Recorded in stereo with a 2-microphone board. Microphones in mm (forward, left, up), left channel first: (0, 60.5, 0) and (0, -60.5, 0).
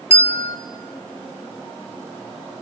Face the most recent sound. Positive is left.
turn(degrees=60)  # may be behind; listen again after turning